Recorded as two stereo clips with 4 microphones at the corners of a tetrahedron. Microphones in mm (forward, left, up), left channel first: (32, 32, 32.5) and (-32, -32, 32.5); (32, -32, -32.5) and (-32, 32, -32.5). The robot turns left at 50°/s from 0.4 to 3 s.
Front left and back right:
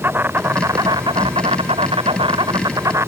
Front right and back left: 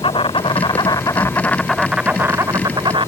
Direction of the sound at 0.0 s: 65° right.